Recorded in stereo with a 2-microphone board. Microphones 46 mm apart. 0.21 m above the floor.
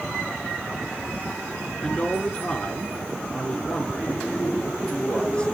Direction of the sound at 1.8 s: 20° left (ahead or behind).